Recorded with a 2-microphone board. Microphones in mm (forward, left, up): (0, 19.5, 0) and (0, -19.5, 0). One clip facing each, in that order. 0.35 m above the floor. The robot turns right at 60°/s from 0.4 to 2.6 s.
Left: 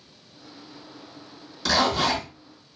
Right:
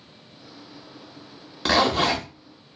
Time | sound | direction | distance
1.6 | a zipper | 100° right | 0.8 m